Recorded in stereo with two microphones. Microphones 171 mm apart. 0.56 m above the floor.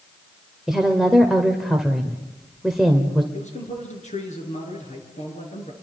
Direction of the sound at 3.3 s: 45° left (ahead or behind).